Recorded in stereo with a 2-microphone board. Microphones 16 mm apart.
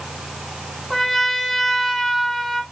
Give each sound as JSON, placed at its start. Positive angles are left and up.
{"t": 0.9, "sound": "a trumpet", "side_deg": 15, "distance_m": 3.5}